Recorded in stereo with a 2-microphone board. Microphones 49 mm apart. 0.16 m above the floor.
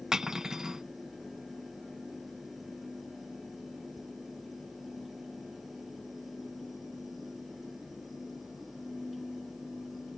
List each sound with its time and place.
0.1 s cutlery clinking: 10° right (ahead or behind)